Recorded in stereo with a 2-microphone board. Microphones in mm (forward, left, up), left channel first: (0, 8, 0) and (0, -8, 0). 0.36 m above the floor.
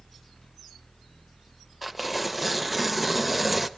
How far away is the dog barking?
No dog barking in this recording.